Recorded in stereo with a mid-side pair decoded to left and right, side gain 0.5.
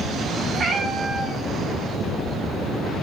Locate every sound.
0.5 s a cat meowing: 55° right, 3 m